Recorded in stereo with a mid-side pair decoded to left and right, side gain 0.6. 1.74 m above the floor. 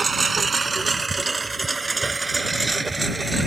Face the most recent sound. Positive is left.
turn(degrees=-15)